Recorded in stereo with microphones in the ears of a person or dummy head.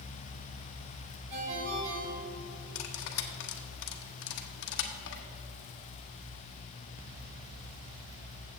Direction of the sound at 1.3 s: 70° right (ahead or behind).